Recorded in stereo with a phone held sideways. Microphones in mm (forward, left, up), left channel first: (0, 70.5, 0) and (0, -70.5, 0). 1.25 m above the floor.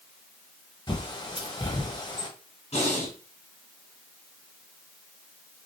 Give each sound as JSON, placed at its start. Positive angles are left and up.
{"t": 0.9, "sound": "a bird", "side_deg": 30, "distance_m": 0.8}
{"t": 2.7, "sound": "breathing", "side_deg": 50, "distance_m": 1.8}